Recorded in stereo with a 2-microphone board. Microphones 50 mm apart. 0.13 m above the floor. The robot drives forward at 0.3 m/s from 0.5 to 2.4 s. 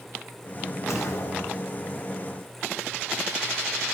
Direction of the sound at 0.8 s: 70° left (ahead or behind).